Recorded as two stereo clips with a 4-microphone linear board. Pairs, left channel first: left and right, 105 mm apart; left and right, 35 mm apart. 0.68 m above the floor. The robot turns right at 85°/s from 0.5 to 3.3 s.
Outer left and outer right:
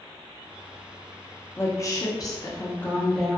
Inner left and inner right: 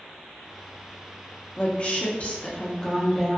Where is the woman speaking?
40° left, 0.6 m; by 3.4 s 175° right, 0.6 m.